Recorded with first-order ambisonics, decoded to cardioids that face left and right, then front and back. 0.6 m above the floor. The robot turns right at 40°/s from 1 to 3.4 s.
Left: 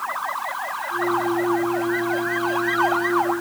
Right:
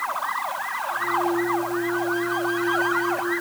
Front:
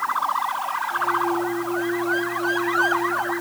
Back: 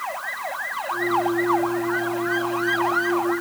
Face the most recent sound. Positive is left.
No sound to turn to.